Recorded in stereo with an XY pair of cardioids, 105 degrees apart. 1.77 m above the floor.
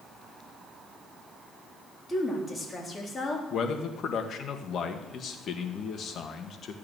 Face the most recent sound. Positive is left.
turn(degrees=55)